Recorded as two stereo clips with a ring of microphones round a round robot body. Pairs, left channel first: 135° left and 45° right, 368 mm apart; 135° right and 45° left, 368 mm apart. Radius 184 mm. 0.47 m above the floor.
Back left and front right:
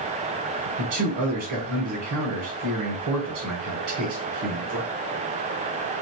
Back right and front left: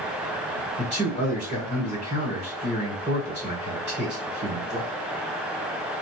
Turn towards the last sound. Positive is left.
turn(degrees=-25)